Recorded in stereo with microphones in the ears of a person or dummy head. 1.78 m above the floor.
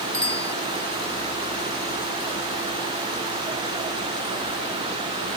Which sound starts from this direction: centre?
A bicycle bell, at 0.1 s.